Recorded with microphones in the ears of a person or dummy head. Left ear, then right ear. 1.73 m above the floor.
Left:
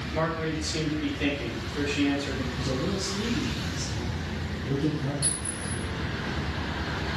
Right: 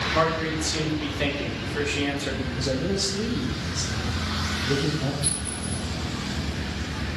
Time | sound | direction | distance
0.1 | a man speaking | 40° right (ahead or behind) | 1.3 m
2.5 | a man speaking | 35° right (ahead or behind) | 1.0 m
5.2 | a clink | 40° left (ahead or behind) | 1.9 m